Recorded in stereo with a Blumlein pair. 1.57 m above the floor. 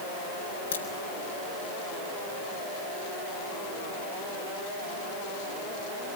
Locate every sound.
0.7 s a crack: 70° left, 6 m